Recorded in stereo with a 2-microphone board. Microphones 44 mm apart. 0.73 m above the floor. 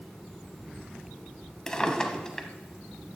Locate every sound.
1.7 s a drawer: 15° left (ahead or behind), 1.0 m